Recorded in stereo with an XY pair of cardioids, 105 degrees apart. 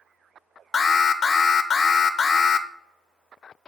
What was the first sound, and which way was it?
An alarm, 40° left.